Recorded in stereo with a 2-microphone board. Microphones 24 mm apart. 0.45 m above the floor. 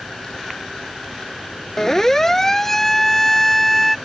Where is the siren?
20° left (ahead or behind); by 4.0 s 10° left (ahead or behind).